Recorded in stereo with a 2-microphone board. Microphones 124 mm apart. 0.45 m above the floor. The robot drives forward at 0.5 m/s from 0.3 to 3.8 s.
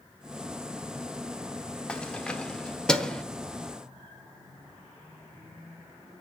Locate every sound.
1.9 s keys jangling: 10° left (ahead or behind), 0.7 m; by 3.2 s 5° left (ahead or behind), 1.1 m